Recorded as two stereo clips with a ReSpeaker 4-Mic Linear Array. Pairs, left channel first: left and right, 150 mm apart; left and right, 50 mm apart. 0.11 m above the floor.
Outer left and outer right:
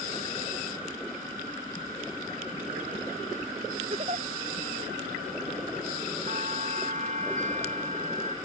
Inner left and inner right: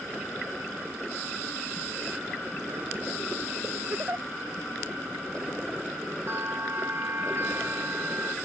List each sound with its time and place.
3.9 s a giggle: 40° right (ahead or behind)
6.3 s a bell: 50° right (ahead or behind)